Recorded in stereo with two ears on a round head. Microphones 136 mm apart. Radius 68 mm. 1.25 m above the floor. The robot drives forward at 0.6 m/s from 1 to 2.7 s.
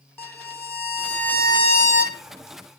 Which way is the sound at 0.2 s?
15° left (ahead or behind).